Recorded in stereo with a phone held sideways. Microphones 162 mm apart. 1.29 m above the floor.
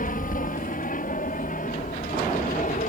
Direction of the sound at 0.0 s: 55° left (ahead or behind).